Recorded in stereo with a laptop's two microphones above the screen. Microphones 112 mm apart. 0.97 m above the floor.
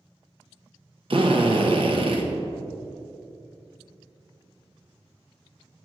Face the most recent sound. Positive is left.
turn(degrees=-55)  # may be behind; listen again after turning